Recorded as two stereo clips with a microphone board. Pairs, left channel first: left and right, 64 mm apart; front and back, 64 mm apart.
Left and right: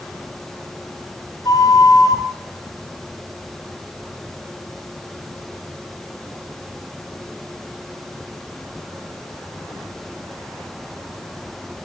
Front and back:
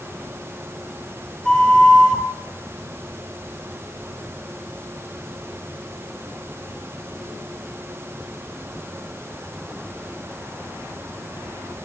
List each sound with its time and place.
1.4 s a flute: 80° left, 3 m